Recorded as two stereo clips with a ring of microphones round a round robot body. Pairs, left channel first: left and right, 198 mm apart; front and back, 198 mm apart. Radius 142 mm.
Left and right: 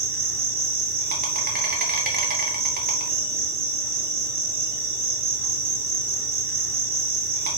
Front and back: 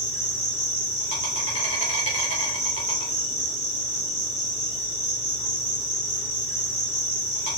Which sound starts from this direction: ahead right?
An insect, at 0.0 s.